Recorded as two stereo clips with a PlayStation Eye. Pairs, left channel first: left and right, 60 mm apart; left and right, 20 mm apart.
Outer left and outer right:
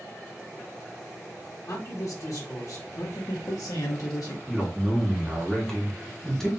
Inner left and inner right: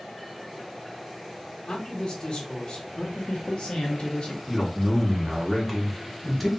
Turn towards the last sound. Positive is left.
turn(degrees=5)  # may be behind; listen again after turning